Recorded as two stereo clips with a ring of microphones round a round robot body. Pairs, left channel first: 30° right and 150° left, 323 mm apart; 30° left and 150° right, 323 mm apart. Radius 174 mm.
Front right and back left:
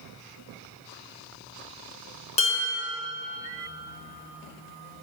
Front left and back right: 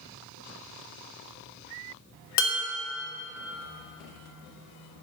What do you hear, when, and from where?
2.4 s dishes clattering: 45° left, 1.2 m